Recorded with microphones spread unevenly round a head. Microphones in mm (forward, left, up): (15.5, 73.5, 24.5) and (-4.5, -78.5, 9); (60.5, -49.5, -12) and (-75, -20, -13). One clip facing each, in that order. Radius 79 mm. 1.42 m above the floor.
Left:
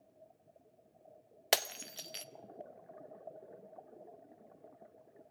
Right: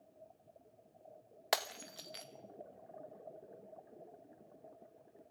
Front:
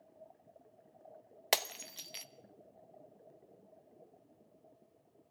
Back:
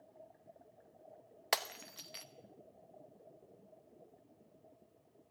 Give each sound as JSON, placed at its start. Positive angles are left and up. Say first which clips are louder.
{"t": 1.5, "sound": "breaking glass", "louder": "left 2 dB, front 2 dB", "azimuth_deg": 45, "distance_m": 0.8}